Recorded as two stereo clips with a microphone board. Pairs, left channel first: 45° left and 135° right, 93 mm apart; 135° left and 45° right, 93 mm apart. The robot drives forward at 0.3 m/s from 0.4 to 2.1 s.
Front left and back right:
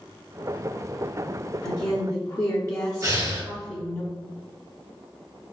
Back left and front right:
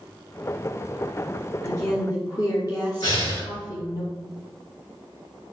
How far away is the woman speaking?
About 0.7 m.